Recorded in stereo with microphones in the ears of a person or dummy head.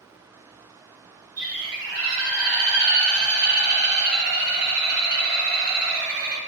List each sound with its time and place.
1.4 s a bird: 55° right (ahead or behind), 1.3 m